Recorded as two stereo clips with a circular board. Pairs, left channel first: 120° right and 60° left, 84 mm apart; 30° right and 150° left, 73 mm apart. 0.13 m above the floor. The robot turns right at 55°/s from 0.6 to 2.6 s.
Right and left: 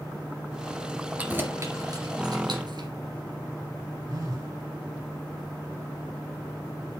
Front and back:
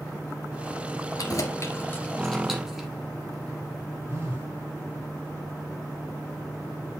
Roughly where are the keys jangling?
Ahead.